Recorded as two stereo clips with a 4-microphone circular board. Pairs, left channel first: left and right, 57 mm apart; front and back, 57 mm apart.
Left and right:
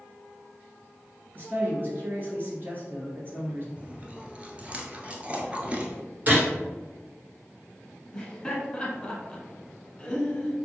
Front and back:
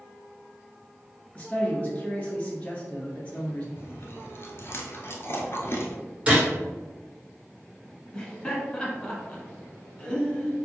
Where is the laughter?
40° left, 1.2 m.